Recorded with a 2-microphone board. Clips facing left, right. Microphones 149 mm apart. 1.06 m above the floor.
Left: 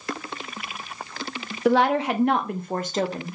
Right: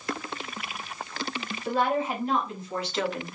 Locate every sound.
1.6 s a woman speaking: 80° left, 0.8 m; by 3.4 s 30° left (ahead or behind), 0.9 m